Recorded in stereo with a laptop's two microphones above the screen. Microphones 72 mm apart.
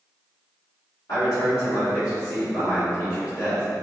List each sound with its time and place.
1.1 s a man speaking: 50° left (ahead or behind), 1.8 m